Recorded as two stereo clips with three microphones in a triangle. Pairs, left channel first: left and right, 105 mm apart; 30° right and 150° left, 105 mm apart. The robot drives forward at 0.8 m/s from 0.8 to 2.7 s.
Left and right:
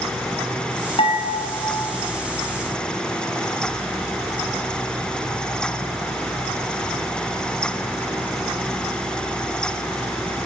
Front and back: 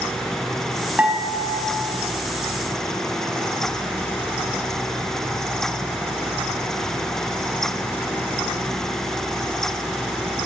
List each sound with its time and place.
1.0 s dishes clattering: 75° left, 7 m